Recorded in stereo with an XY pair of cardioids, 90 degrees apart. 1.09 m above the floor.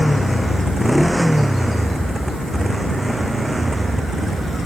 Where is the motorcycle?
5° left; by 4.7 s 25° right.